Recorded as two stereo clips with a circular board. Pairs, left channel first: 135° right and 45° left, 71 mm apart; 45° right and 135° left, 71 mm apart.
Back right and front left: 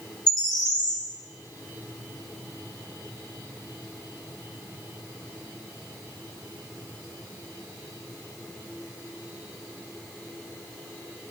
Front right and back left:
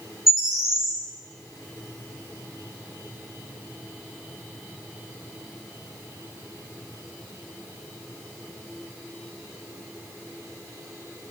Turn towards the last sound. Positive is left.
turn(degrees=-140)